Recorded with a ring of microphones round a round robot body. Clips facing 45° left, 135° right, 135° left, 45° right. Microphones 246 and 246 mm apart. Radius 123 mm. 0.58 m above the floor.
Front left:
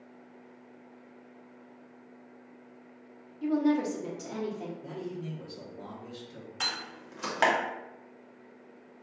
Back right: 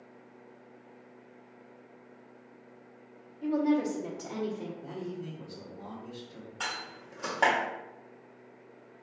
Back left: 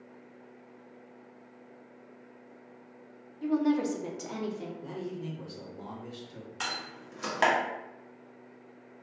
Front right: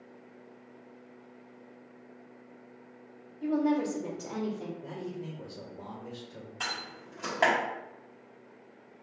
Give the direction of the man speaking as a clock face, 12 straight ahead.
8 o'clock.